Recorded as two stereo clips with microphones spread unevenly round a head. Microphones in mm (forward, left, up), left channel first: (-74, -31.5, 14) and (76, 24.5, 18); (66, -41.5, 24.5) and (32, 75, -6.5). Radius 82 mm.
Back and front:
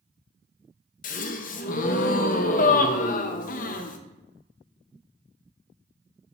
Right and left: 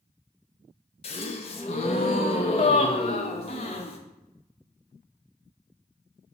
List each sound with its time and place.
1.0 s a gasp: 130° right, 0.6 m